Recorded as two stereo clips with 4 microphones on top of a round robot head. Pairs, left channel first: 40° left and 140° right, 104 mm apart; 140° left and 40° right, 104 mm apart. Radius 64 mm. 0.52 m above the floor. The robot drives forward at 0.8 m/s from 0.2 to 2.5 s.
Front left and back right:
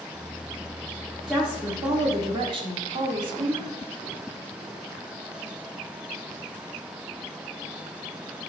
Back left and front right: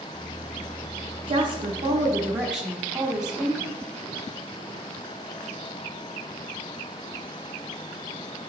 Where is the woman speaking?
55° right, 1.1 m; by 3.7 s 125° right, 1.1 m.